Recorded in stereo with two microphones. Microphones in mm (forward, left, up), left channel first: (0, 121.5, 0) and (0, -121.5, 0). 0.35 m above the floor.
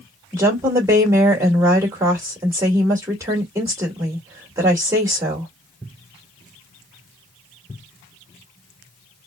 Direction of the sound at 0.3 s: 10° right (ahead or behind).